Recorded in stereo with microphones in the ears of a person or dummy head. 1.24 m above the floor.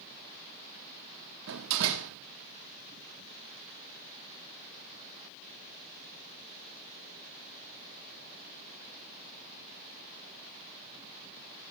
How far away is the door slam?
About 1.5 m.